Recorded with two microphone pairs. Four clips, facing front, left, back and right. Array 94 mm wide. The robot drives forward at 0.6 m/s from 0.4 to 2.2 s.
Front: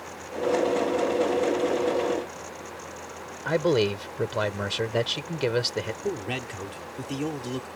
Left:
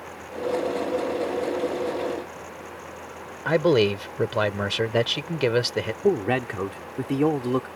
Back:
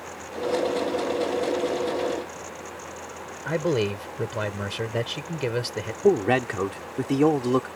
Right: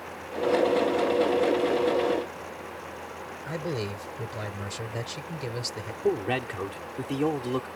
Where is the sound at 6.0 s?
170° left.